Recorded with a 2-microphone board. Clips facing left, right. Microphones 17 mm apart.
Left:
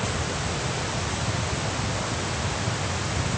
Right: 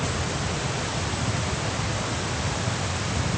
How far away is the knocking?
No knocking in this recording.